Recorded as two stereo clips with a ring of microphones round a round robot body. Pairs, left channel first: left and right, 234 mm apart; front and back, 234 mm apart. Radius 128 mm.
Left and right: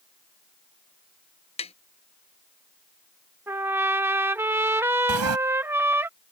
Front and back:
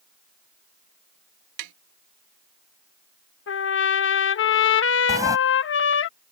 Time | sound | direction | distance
1.6 | tapping | 155° left | ?
3.5 | a trumpet | 10° right | ?
5.1 | a sliding door | 105° right | ?